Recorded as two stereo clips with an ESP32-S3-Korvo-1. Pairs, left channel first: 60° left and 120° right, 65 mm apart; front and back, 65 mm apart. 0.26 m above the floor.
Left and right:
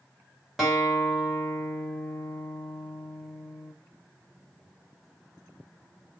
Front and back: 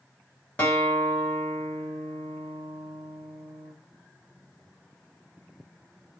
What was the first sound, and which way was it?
A guitar, 40° right.